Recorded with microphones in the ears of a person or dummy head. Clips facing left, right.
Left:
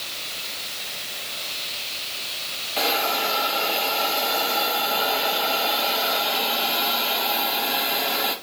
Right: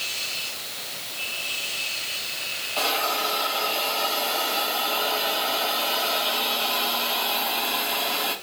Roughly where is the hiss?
Left.